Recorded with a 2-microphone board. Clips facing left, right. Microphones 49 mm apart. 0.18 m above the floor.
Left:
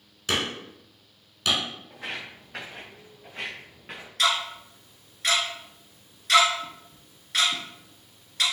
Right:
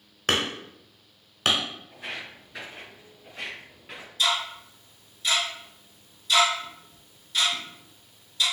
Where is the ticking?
65° left (ahead or behind), 1.1 m.